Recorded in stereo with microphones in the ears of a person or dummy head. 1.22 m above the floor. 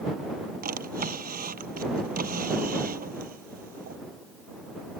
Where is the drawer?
50° right (ahead or behind).